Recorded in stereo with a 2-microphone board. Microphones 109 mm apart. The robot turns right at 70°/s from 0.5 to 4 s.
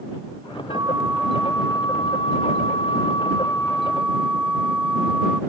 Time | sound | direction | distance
0.7 | a flute | 45° right | ?